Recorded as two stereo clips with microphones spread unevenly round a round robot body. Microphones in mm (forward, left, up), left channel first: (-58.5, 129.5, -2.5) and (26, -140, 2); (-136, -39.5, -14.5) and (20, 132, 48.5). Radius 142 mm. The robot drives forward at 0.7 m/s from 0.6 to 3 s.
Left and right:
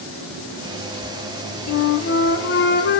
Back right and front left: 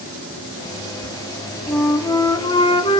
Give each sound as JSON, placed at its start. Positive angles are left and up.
{"t": 1.7, "sound": "a flute", "azimuth_deg": 145, "distance_m": 1.2}